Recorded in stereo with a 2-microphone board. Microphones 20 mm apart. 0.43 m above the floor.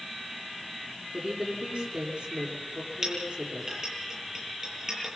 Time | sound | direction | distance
1.1 | a woman speaking | 70° right (ahead or behind) | 7.5 m
3.0 | a clink | 30° right (ahead or behind) | 8.5 m